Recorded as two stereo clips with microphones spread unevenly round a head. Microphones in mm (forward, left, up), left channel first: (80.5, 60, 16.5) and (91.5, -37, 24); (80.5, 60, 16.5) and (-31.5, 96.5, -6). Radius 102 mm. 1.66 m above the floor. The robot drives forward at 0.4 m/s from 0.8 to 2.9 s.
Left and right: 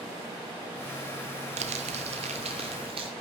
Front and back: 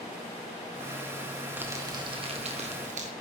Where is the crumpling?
115° right, 0.6 m; by 3.1 s 145° right, 1.0 m.